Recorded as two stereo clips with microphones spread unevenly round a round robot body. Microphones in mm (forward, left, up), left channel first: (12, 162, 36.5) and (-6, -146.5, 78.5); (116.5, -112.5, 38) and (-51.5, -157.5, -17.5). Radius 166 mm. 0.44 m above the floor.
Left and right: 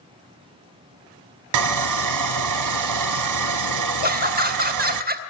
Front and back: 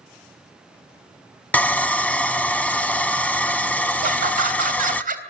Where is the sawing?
65° right, 0.8 m.